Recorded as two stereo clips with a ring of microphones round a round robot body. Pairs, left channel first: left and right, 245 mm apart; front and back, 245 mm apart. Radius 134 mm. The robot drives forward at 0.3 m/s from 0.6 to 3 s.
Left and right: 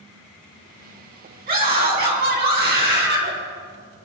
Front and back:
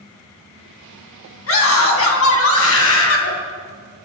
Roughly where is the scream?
Ahead right.